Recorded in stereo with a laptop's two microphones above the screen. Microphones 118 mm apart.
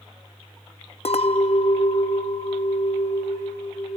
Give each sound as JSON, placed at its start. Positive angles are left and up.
{"t": 1.1, "sound": "a clink", "side_deg": 60, "distance_m": 0.6}